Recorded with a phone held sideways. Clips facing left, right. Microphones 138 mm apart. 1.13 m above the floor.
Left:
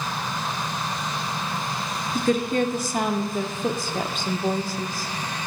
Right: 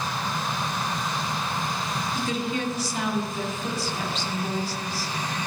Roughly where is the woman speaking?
Left.